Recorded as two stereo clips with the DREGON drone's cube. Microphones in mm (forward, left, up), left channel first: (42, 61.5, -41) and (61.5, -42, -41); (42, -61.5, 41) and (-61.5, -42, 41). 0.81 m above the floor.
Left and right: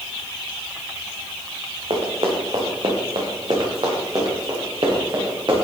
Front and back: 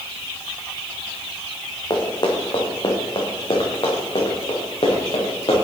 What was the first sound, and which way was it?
Running footsteps, 60° right.